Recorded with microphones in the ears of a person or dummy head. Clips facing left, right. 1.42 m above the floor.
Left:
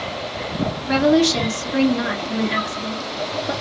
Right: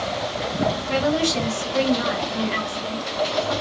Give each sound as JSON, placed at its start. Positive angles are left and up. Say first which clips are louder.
{"t": 0.9, "sound": "a woman speaking", "louder": "left 9 dB", "side_deg": 75, "distance_m": 1.2}